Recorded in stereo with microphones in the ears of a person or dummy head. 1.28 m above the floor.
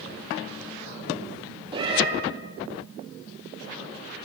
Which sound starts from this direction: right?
A cat meowing, at 1.7 s.